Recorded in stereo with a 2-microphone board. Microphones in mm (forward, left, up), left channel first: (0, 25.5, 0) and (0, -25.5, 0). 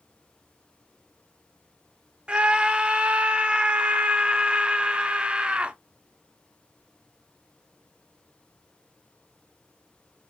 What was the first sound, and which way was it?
A scream, 20° right (ahead or behind).